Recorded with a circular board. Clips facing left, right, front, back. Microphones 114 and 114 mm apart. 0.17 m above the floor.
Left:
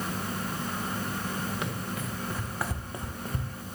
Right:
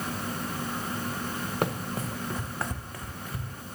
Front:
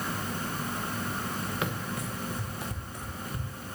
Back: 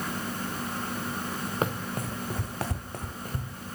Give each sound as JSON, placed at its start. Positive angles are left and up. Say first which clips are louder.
{"t": 1.6, "sound": "running footsteps", "louder": "right 4 dB, back 3 dB", "azimuth_deg": -130, "distance_m": 1.0}